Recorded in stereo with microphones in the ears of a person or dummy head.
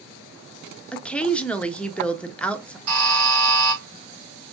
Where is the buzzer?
90° right, 4 m.